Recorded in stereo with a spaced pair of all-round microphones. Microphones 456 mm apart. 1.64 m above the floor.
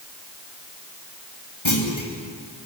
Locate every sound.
1.6 s a clunk: 80° left, 3 m